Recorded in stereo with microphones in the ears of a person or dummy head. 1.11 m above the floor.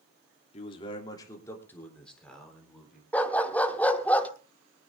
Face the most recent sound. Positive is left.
turn(degrees=5)  # may be behind; listen again after turning